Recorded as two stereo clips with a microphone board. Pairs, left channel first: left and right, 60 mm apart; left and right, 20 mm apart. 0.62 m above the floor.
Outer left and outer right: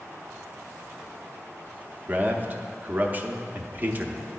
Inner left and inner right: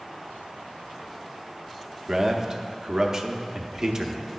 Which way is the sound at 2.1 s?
30° right (ahead or behind).